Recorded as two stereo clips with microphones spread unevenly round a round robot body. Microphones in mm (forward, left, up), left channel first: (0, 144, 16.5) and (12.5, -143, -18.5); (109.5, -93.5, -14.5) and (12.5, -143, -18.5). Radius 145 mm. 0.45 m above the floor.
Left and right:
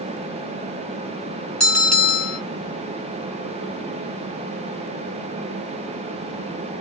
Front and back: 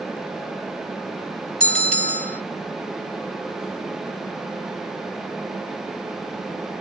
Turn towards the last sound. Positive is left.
turn(degrees=-175)